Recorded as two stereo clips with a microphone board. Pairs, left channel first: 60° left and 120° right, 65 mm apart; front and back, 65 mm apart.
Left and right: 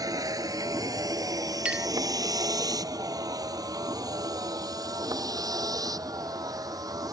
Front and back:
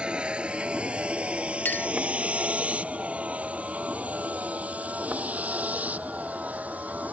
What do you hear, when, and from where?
0.0 s a vehicle: 105° right; by 7.2 s 115° right
1.6 s a clink: 50° right